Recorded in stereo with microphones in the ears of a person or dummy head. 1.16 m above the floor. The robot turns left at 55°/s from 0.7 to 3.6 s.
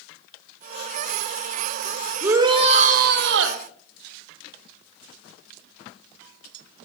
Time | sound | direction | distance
2.2 | a shout | 20° right | 1.5 m